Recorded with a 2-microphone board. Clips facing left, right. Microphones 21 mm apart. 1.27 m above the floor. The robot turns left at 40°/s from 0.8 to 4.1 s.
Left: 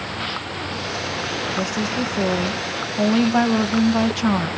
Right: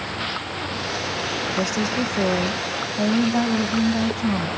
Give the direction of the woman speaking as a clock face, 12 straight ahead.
5 o'clock.